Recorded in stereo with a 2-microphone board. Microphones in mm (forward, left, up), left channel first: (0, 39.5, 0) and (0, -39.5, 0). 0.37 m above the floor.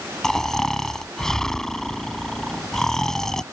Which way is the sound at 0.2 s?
5° left (ahead or behind).